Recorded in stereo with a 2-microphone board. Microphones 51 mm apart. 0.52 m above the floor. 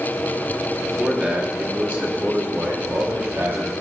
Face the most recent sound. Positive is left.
turn(degrees=-65)  # may be behind; listen again after turning